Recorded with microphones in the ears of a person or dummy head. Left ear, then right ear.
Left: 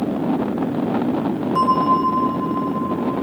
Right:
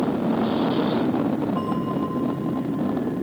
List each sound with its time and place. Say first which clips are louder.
1.6 s a bell: left 10 dB; 80° left, 1.1 m